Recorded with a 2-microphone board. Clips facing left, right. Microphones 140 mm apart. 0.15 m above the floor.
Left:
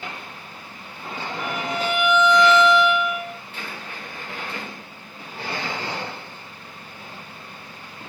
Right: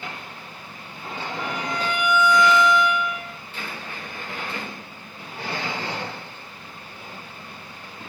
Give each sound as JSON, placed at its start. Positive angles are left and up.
{"t": 1.4, "sound": "a violin", "side_deg": 5, "distance_m": 1.4}